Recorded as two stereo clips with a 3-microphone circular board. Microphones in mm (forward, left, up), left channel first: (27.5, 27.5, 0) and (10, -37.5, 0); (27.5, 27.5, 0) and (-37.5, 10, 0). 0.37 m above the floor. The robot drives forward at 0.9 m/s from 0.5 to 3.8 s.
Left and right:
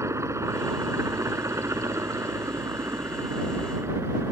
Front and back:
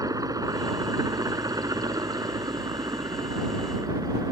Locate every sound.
0.0 s a helicopter: 145° right; by 4.3 s 150° right